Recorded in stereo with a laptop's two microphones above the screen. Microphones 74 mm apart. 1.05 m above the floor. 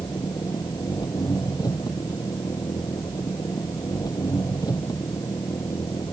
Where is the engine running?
65° left (ahead or behind).